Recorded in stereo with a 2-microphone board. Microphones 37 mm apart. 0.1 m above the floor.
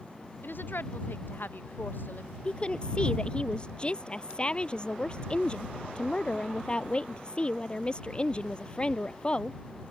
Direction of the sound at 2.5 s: 30° left (ahead or behind).